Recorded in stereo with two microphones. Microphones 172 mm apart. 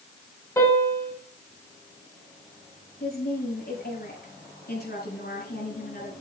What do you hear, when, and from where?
0.6 s a piano: 15° left (ahead or behind), 3.5 m
3.0 s a woman speaking: 70° left (ahead or behind), 4.5 m